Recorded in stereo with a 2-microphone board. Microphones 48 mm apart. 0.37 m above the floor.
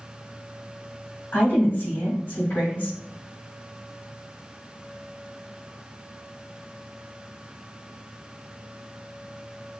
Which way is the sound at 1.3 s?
55° left (ahead or behind).